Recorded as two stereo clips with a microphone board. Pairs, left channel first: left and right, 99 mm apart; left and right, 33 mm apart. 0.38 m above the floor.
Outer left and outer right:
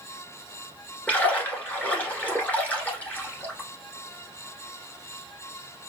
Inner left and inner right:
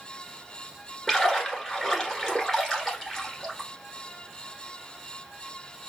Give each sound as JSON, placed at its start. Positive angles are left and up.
{"t": 1.1, "sound": "a splash", "side_deg": 15, "distance_m": 1.4}